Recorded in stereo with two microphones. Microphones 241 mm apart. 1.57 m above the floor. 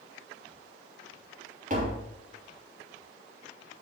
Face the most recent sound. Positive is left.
turn(degrees=-35)  # may be behind; listen again after turning